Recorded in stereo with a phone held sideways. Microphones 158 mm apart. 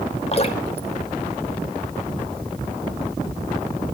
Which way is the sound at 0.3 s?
40° left (ahead or behind).